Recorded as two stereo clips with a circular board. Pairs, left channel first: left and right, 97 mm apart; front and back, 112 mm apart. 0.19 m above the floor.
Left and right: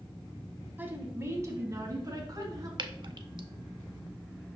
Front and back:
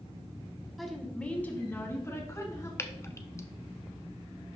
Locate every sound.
0.8 s a woman speaking: 90° right, 1.1 m; by 2.7 s 55° right, 1.8 m
2.8 s dripping: 60° right, 0.5 m